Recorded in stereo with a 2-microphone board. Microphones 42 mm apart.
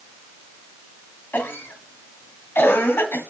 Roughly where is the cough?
Left.